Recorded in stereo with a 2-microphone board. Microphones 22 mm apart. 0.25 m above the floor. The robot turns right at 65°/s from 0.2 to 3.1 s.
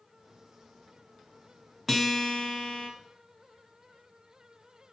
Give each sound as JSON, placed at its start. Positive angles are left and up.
{"t": 1.9, "sound": "a guitar", "azimuth_deg": 15, "distance_m": 1.0}